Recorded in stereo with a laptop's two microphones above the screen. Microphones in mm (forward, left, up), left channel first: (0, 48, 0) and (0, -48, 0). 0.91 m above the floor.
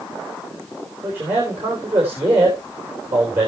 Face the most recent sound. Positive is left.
turn(degrees=-20)  # may be behind; listen again after turning